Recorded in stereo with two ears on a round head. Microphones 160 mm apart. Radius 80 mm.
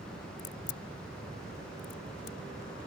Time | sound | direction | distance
0.4 | a crack | 65° left (ahead or behind) | ?